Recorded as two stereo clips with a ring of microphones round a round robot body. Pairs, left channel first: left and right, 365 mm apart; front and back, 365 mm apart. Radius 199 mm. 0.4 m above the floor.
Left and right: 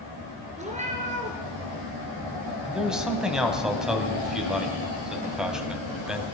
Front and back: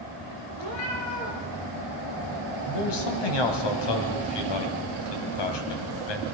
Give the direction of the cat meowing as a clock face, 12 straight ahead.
1 o'clock.